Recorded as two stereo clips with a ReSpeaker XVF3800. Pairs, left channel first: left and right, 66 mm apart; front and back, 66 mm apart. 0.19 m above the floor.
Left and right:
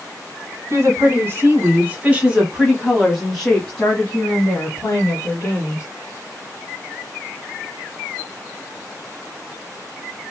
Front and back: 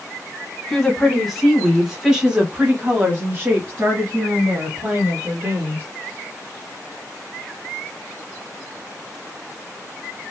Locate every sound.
0.7 s a woman speaking: 80° right, 1.9 m; by 5.8 s 140° left, 2.5 m